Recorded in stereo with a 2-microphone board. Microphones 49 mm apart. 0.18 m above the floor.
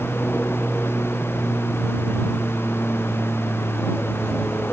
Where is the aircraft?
20° left (ahead or behind); by 4.7 s 15° left (ahead or behind).